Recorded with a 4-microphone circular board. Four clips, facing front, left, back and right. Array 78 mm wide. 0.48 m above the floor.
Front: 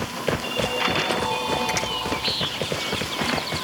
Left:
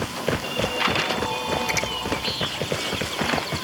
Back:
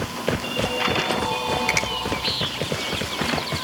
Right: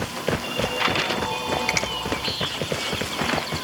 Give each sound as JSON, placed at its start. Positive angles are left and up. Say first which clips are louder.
{"t": 1.7, "sound": "a finger snap", "louder": "even, back 1 dB", "azimuth_deg": -145, "distance_m": 5.0}